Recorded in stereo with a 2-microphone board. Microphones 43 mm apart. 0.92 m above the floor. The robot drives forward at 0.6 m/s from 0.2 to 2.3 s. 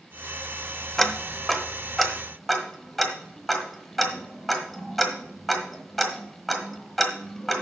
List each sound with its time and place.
1.0 s ticking: 5° left (ahead or behind), 0.7 m; by 7.6 s centre (ahead or behind), 1.4 m